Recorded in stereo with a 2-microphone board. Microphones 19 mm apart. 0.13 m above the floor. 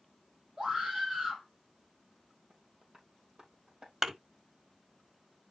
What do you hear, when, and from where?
0.6 s a scream: 35° right (ahead or behind), 4.5 m
2.5 s tapping: 45° right (ahead or behind), 3.5 m
4.0 s a thud: 30° right (ahead or behind), 1.5 m